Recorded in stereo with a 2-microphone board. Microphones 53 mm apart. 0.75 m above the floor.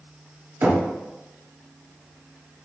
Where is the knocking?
40° right (ahead or behind), 0.8 m.